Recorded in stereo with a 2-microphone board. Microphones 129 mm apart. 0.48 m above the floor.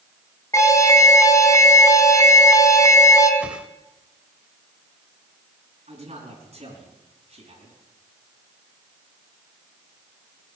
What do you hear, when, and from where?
0.5 s an alarm: 25° left (ahead or behind), 2 m
3.4 s a whoosh: 10° right (ahead or behind), 0.9 m
5.9 s a man speaking: 55° right (ahead or behind), 5.5 m